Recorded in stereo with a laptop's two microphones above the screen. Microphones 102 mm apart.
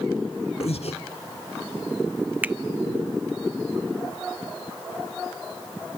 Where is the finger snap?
15° right (ahead or behind), 0.5 m.